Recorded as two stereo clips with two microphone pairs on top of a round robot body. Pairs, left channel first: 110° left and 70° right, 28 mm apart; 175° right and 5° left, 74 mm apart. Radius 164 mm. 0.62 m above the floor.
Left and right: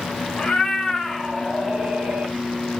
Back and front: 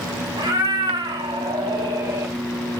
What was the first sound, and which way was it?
A cat meowing, 50° left.